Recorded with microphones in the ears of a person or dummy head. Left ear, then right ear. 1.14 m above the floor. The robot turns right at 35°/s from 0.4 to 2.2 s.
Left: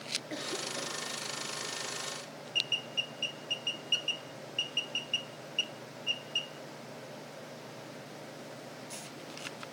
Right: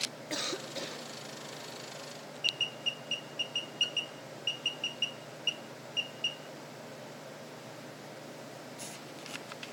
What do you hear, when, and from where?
0.3 s a cough: 35° right (ahead or behind), 3 m; by 1.1 s 15° right (ahead or behind), 3 m